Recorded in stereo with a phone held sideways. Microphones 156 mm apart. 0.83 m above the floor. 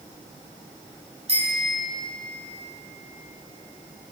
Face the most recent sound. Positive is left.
turn(degrees=-40)  # may be behind; listen again after turning